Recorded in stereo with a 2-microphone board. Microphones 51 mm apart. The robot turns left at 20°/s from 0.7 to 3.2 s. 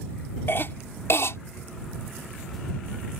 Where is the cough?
50° left (ahead or behind); by 1.4 s 65° left (ahead or behind).